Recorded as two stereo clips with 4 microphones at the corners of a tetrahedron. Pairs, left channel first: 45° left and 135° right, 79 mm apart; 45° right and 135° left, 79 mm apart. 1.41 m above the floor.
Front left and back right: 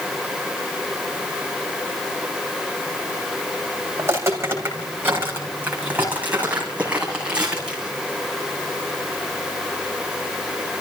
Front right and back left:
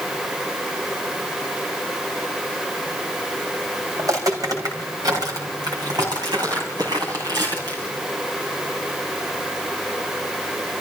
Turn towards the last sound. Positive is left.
turn(degrees=145)